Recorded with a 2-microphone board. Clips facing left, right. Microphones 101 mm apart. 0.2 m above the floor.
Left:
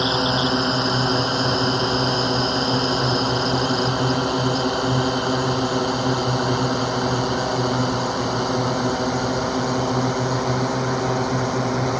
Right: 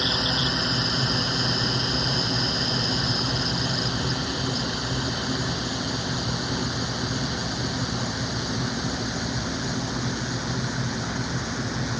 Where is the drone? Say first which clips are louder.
Left 7 dB; 45° left (ahead or behind); by 12.0 s 75° left (ahead or behind).